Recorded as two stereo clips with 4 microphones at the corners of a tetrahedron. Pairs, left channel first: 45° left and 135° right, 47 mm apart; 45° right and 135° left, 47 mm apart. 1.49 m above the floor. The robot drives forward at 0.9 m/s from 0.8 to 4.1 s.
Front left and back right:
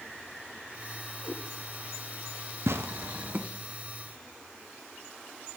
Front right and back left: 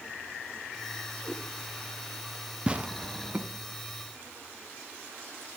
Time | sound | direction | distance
1.2 | a cat meowing | 130° right | 9.5 m
2.7 | tearing paper | 160° right | 0.6 m